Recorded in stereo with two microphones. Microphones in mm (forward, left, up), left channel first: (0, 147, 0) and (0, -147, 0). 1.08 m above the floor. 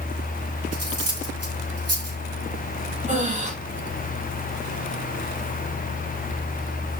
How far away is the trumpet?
No trumpet in this recording.